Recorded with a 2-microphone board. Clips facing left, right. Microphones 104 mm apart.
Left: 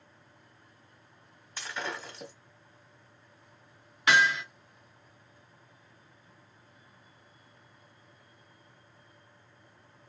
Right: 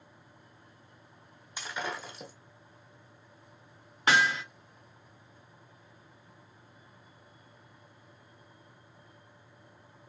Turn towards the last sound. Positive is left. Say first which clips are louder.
# left 1 dB
turn(degrees=-35)  # may be behind; listen again after turning